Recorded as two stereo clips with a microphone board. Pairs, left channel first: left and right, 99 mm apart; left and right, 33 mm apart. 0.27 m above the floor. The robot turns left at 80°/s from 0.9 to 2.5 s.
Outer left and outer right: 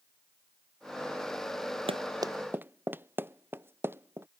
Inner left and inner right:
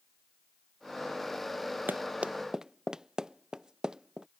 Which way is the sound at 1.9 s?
65° right (ahead or behind).